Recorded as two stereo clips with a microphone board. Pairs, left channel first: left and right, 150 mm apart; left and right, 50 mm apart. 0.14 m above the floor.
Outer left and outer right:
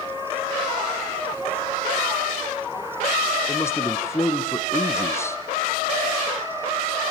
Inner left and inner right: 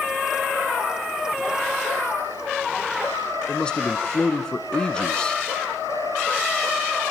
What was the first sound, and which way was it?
A man speaking, 20° left (ahead or behind).